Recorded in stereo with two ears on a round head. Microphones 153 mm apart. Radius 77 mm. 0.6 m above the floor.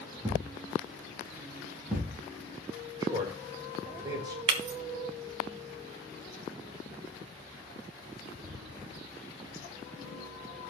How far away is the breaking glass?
About 1.7 m.